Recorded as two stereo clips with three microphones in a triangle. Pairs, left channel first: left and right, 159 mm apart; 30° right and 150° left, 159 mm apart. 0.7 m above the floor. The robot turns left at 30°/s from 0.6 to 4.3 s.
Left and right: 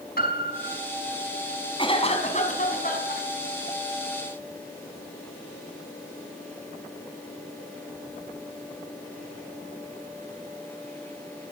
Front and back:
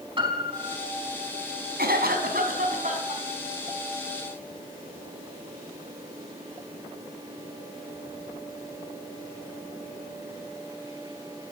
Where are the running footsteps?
No running footsteps in this recording.